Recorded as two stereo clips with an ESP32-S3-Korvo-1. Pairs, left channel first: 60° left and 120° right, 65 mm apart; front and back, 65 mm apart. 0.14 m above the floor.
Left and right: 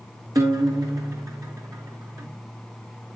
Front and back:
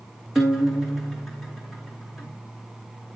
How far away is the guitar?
About 2.5 m.